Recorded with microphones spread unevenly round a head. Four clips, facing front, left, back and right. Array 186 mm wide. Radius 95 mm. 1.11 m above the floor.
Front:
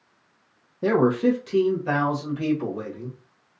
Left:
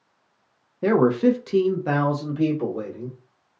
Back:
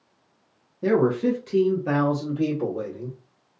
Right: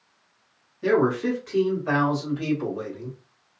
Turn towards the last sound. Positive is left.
turn(degrees=130)